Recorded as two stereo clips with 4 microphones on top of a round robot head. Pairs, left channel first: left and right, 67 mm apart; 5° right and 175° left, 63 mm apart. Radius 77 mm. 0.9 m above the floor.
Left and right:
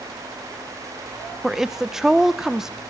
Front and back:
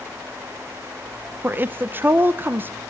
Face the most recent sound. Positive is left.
turn(degrees=-170)